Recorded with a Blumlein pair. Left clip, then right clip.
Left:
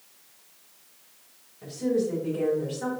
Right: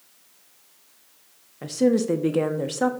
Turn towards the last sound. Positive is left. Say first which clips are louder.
# right 5 dB
turn(degrees=-35)